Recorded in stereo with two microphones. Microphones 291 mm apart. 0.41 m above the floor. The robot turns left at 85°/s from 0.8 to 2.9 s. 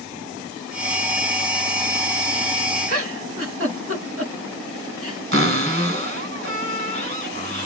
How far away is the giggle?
About 1.3 m.